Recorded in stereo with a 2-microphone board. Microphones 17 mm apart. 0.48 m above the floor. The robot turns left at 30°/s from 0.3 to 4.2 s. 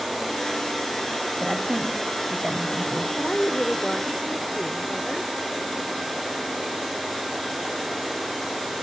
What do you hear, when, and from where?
1.4 s a woman speaking: 70° right, 3 m; by 3.1 s 120° right, 3 m
3.2 s a woman speaking: 160° left, 1.2 m; by 5.3 s 130° left, 1.2 m